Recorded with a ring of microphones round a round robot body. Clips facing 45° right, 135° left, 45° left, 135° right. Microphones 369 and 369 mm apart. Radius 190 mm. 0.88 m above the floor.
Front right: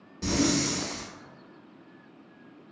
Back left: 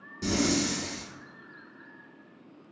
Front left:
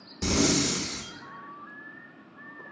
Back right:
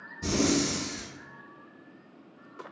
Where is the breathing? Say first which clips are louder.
Front right 1 dB, front left 1 dB; 55° left, 0.6 m.